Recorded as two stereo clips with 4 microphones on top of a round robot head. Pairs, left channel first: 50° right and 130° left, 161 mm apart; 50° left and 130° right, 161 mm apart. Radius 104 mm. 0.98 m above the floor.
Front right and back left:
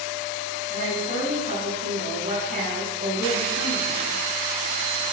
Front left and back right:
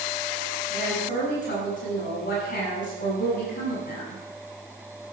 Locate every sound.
0.7 s a woman speaking: 90° left, 7 m